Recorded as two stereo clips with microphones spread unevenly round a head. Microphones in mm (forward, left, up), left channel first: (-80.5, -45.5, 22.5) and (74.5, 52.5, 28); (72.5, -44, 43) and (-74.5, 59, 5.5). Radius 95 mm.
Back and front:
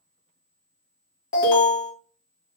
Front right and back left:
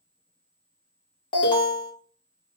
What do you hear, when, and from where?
1.3 s an alarm: 100° right, 1.6 m